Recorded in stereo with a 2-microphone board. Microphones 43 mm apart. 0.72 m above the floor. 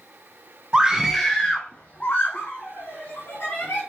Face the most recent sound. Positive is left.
turn(degrees=65)  # may be behind; listen again after turning